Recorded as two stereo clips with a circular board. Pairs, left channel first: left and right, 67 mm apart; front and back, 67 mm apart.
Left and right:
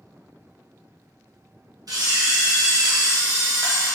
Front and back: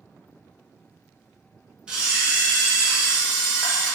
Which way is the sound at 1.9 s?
105° right.